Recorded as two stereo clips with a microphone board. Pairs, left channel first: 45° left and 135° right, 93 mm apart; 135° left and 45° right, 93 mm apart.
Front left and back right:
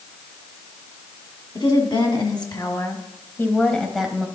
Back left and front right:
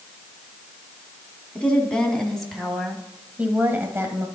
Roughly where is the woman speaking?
Ahead left.